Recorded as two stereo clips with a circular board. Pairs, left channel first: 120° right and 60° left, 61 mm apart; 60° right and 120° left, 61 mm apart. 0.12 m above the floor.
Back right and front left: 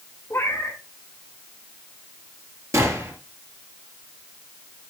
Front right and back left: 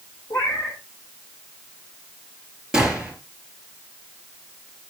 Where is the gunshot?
45° left, 3 m.